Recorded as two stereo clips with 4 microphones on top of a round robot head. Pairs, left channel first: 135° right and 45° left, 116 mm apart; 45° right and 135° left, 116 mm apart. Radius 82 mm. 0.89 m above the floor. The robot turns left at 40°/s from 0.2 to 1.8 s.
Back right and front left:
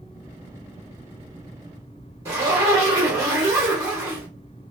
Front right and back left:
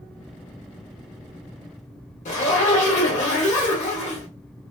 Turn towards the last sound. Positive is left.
turn(degrees=-20)